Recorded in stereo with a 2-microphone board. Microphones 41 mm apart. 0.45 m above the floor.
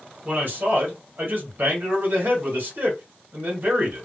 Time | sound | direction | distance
0.2 | a man speaking | 50° right (ahead or behind) | 1.5 m